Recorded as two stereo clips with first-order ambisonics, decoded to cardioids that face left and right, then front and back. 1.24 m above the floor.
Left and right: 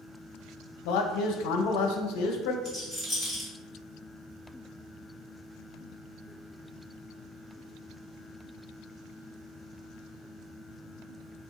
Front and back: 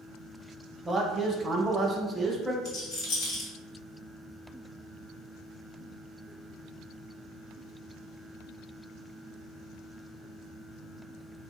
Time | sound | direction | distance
0.8 | a man speaking | 105° left | 0.6 m
2.6 | a rattle | straight ahead | 1.6 m